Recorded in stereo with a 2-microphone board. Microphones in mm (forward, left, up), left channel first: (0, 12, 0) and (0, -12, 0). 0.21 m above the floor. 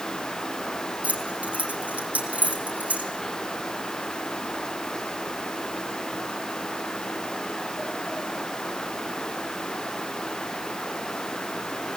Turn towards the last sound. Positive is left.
turn(degrees=-75)  # may be behind; listen again after turning